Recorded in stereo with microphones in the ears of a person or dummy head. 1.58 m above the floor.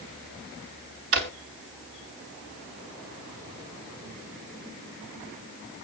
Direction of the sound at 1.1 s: 45° right (ahead or behind).